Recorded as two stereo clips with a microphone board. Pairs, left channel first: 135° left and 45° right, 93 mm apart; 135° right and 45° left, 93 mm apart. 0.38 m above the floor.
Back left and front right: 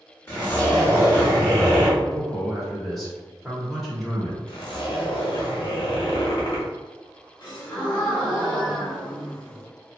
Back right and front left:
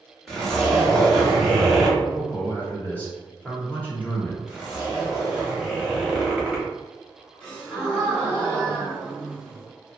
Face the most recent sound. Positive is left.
turn(degrees=145)